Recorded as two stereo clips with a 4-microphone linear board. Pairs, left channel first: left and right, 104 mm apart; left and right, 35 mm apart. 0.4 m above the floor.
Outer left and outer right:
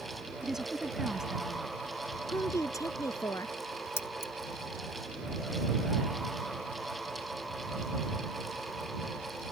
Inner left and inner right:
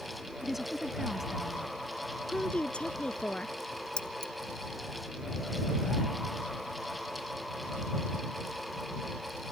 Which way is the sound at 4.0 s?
25° left (ahead or behind).